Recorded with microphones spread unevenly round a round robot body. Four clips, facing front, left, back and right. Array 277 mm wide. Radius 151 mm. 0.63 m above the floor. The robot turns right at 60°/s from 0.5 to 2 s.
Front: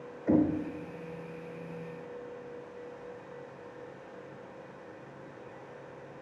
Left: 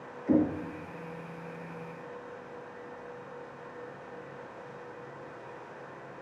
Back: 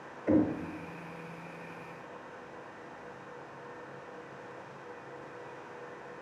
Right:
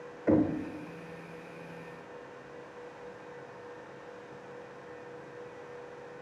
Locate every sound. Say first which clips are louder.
0.3 s knocking: even, front 1 dB; 120° right, 1.9 m